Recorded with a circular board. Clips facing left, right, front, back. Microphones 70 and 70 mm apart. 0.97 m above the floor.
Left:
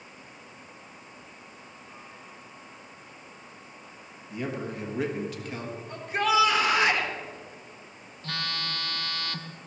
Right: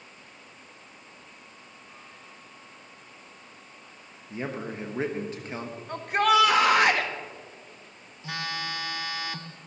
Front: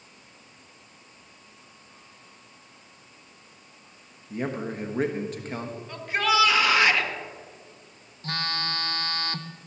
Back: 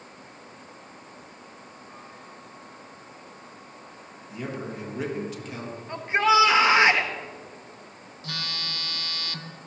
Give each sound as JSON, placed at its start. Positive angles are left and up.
{"t": 4.3, "sound": "a man speaking", "azimuth_deg": -35, "distance_m": 1.2}
{"t": 5.9, "sound": "a shout", "azimuth_deg": -115, "distance_m": 1.4}
{"t": 8.2, "sound": "a phone buzzing", "azimuth_deg": -15, "distance_m": 0.7}